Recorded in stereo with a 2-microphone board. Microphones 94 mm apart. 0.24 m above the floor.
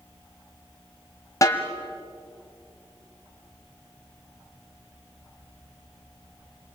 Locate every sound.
1.4 s a snare drum: 35° left (ahead or behind), 1.8 m